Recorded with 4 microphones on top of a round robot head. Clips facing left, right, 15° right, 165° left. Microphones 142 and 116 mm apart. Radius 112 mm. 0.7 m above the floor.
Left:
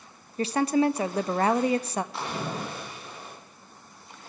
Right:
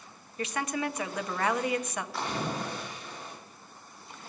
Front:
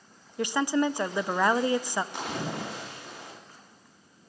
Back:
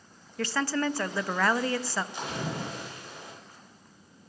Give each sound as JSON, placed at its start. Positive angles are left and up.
{"t": 0.4, "sound": "a woman speaking", "azimuth_deg": 55, "distance_m": 0.7}
{"t": 2.1, "sound": "a splash", "azimuth_deg": 20, "distance_m": 7.0}